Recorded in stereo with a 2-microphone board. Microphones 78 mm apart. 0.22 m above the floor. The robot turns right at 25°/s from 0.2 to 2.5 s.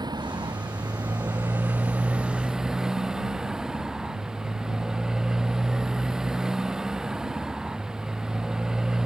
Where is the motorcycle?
65° right; by 9.1 s 5° right.